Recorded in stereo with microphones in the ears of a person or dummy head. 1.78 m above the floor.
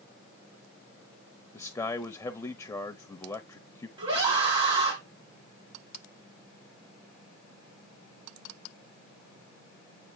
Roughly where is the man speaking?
Centre.